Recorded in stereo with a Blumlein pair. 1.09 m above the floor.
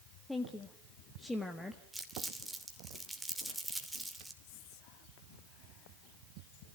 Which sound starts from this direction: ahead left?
Whispering, at 4.4 s.